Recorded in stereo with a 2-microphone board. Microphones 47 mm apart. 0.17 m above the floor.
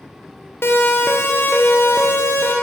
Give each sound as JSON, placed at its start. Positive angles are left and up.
{"t": 0.6, "sound": "a siren", "side_deg": 60, "distance_m": 3.5}